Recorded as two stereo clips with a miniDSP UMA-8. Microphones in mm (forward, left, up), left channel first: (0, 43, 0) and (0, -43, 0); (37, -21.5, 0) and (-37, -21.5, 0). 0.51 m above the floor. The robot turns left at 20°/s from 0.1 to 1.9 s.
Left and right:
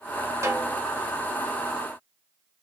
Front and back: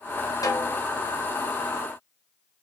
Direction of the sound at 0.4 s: 35° right.